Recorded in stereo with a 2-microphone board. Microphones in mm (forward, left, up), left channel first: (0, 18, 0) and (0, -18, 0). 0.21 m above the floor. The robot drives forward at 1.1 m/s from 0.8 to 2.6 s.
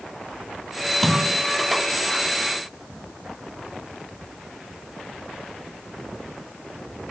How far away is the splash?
About 1.1 m.